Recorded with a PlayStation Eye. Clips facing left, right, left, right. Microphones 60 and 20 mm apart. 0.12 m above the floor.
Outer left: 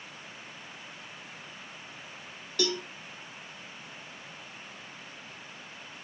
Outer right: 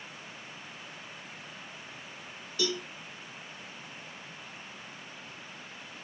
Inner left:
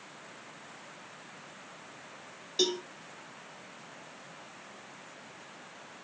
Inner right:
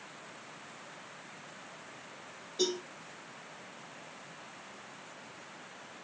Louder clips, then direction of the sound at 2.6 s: Outer left 2 dB, inner left 3 dB; 60° left (ahead or behind).